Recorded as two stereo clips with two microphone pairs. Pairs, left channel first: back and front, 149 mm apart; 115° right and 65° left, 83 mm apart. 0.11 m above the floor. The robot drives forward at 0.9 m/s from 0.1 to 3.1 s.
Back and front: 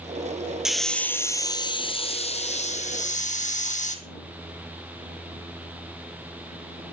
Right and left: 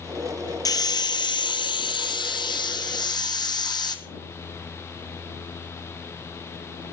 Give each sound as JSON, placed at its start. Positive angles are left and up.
{"t": 0.7, "sound": "a hiss", "azimuth_deg": -85, "distance_m": 1.4}